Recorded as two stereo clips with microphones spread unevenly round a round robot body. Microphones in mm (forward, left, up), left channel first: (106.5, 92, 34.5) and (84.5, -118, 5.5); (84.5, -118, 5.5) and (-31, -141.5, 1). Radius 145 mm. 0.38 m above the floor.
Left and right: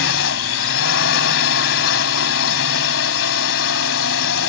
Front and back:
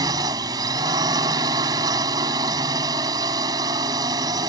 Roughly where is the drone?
Behind left.